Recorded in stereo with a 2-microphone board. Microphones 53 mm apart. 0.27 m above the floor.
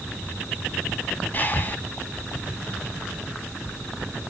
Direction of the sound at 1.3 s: 35° left (ahead or behind).